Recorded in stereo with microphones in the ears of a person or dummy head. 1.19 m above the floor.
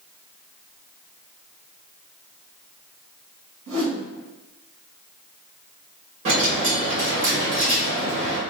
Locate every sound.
3.7 s a whoosh: 70° right (ahead or behind), 0.9 m
6.2 s a dropped coin: 35° right (ahead or behind), 1.3 m